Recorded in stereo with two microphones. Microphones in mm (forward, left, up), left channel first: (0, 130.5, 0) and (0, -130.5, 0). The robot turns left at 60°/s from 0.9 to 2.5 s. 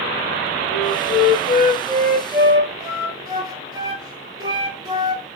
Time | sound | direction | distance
0.7 | a flute | 75° left | 0.8 m